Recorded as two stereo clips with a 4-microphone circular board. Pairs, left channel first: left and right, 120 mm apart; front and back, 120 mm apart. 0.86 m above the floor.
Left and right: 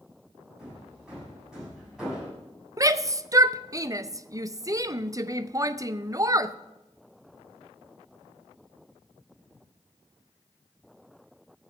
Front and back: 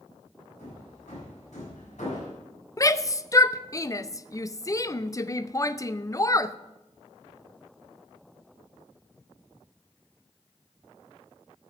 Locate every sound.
0.6 s hammering: 5° right, 7 m
2.8 s a shout: 45° right, 0.5 m